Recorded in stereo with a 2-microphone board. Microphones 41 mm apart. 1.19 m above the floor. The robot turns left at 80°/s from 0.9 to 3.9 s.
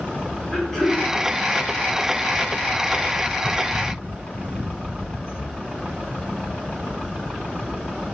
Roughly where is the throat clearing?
Centre.